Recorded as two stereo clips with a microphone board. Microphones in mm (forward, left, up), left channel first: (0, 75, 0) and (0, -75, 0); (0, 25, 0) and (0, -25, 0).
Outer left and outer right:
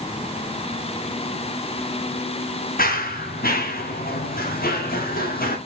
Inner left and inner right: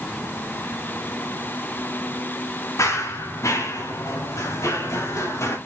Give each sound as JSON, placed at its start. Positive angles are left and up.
{"t": 2.8, "sound": "running footsteps", "side_deg": 75, "distance_m": 2.5}